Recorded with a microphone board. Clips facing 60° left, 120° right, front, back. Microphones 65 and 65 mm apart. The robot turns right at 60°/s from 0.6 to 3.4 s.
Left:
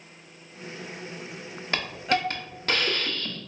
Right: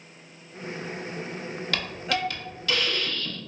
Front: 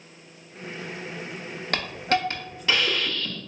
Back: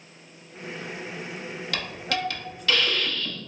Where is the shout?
No shout in this recording.